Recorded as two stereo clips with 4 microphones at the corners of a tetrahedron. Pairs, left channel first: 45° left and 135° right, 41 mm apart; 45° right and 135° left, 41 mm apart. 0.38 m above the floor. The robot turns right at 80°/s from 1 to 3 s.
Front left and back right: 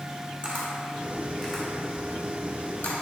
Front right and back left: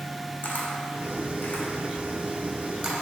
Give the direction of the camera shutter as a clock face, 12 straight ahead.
3 o'clock.